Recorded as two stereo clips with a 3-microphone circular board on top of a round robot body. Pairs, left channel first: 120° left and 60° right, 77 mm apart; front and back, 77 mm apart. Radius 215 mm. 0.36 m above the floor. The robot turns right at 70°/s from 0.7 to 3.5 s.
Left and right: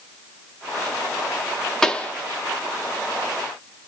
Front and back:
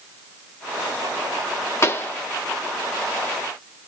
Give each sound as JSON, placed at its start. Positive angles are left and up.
{"t": 1.8, "sound": "a pop", "azimuth_deg": 40, "distance_m": 1.2}